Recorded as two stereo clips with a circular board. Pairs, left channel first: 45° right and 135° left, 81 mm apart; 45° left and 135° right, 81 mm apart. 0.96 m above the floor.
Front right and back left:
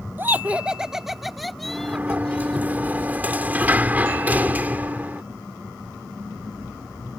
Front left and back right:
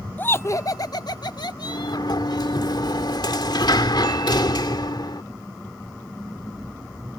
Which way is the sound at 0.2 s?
90° left.